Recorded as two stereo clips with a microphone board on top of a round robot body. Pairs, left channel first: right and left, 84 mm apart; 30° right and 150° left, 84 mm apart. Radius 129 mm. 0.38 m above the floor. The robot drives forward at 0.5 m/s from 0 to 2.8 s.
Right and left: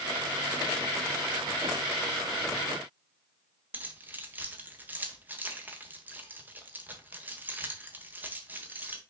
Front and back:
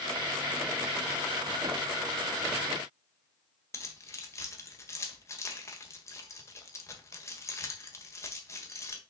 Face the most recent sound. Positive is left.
turn(degrees=25)